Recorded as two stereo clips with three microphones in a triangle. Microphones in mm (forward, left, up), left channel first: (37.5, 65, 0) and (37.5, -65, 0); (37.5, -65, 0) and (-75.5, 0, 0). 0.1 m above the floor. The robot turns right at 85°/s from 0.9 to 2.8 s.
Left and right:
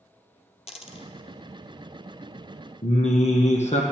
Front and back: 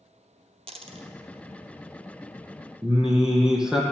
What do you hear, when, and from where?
0.7 s a dropped coin: 120° left, 0.6 m; by 1.1 s 135° left, 0.6 m
2.8 s singing: 65° left, 1.1 m